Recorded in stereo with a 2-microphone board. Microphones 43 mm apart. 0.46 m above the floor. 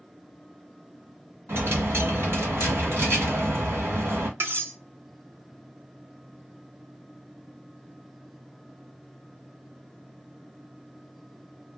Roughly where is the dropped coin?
Right.